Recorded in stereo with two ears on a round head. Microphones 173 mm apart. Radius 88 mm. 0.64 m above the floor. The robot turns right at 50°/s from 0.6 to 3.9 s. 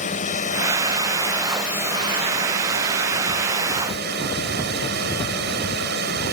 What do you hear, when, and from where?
0.0 s a drone: 135° left; by 6.3 s 60° right